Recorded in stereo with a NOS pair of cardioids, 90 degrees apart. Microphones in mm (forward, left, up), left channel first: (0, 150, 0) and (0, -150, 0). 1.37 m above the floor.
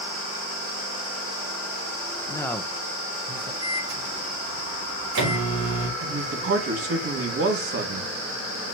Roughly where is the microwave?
Ahead right.